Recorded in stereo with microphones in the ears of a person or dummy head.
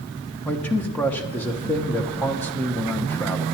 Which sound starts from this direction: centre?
A man speaking, at 0.5 s.